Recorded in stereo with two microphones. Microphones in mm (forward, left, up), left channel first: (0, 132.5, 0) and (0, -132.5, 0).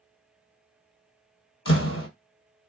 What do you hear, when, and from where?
1.6 s a door slam: 55° left (ahead or behind), 1.6 m